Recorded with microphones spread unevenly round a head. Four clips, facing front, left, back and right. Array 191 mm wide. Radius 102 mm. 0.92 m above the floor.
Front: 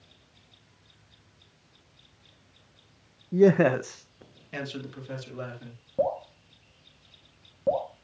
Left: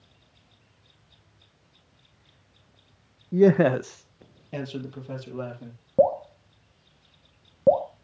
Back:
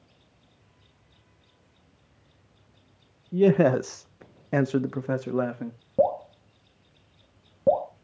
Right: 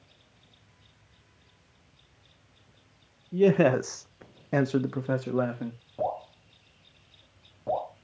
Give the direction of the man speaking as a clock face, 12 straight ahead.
10 o'clock.